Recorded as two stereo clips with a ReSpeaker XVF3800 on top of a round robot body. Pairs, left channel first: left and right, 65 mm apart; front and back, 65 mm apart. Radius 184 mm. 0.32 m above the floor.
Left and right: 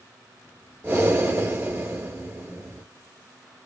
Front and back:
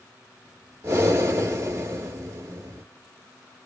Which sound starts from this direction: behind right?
Breathing, at 0.8 s.